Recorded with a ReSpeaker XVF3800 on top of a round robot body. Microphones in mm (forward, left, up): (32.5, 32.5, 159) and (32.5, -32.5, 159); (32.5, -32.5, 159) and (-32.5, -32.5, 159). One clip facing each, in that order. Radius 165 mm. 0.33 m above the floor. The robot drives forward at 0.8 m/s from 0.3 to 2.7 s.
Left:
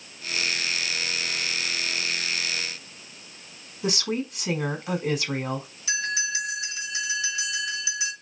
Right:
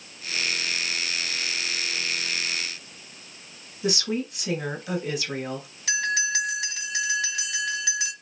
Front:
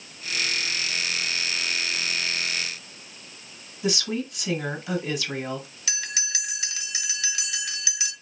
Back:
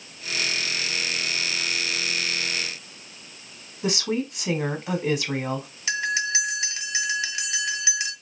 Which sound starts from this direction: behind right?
A bell, at 5.9 s.